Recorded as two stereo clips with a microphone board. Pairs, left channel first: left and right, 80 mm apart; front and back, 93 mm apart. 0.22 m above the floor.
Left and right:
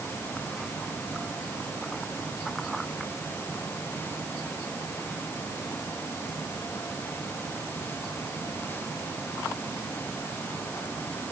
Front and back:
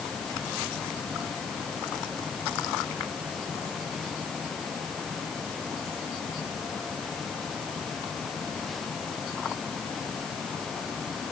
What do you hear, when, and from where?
Only background noise.